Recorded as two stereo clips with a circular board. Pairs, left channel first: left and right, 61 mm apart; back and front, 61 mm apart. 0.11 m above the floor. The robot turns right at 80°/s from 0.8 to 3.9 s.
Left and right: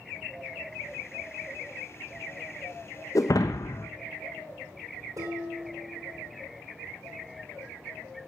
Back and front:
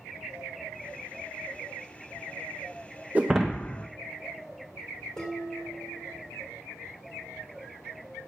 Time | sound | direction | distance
3.1 | breaking glass | 65° left | 1.1 m
5.2 | dishes clattering | 100° right | 4.5 m